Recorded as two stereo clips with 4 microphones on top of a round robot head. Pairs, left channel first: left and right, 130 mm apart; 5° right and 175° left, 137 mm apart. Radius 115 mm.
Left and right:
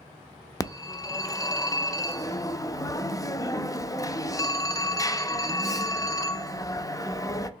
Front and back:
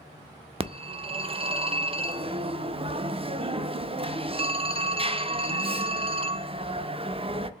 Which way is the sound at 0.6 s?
145° left.